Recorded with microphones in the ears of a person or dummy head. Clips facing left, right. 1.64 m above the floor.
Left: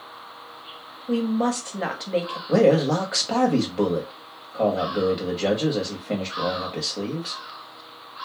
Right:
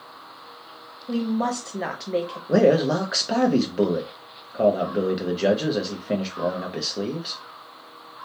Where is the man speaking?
15° right (ahead or behind), 0.5 m.